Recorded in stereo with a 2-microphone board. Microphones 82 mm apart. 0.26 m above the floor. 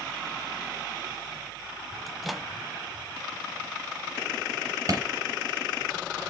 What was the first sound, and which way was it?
A microwave, centre (ahead or behind).